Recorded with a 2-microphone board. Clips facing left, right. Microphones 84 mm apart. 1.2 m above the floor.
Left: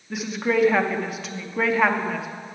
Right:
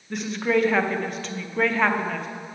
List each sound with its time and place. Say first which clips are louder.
0.1 s a woman speaking: even; 5° left (ahead or behind), 0.6 m